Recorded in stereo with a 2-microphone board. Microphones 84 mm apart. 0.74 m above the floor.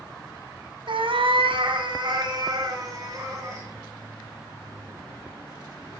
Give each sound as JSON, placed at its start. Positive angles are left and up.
{"t": 0.9, "sound": "a cat meowing", "side_deg": -70, "distance_m": 0.6}